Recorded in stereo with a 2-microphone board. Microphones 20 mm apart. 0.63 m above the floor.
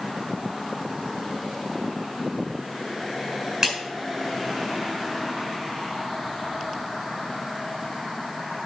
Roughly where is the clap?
Right.